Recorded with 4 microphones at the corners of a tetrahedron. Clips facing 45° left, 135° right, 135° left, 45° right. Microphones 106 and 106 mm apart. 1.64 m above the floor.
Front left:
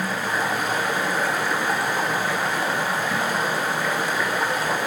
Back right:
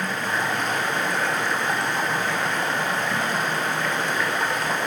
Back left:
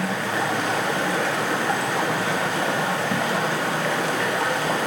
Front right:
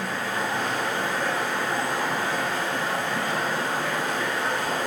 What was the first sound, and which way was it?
Running water, 125° left.